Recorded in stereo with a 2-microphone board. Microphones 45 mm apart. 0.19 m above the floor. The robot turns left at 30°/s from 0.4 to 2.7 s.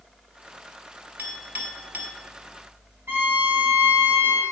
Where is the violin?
60° right (ahead or behind), 3.5 m.